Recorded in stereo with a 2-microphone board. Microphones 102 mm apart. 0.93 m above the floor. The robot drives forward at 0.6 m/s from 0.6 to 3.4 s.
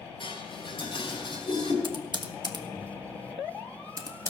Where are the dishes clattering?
55° left (ahead or behind), 5 m; by 1.7 s 50° left (ahead or behind), 5 m.